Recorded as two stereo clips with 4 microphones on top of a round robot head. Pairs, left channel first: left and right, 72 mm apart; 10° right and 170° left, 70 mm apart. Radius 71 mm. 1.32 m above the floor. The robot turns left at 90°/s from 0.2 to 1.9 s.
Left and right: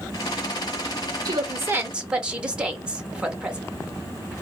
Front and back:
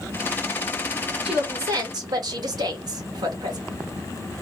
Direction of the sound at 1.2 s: 105° right.